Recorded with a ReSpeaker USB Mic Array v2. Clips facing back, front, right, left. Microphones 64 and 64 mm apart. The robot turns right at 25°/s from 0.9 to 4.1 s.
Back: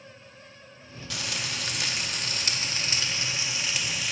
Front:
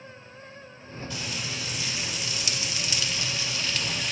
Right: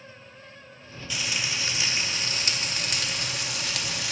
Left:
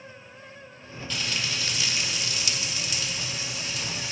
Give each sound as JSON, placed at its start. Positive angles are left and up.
{"t": 1.1, "sound": "frying", "azimuth_deg": -170, "distance_m": 0.6}